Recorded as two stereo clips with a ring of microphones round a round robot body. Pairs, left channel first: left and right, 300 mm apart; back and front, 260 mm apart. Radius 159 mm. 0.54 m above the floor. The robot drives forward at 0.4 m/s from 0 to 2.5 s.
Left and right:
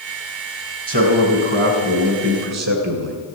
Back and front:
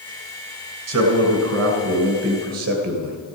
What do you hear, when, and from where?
0.9 s a man speaking: 45° right, 3 m; by 3.2 s 55° right, 2.5 m